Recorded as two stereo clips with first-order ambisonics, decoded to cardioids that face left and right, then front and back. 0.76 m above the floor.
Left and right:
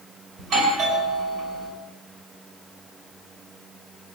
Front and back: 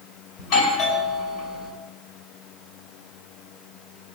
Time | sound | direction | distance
0.4 | a doorbell | 40° right | 4.5 m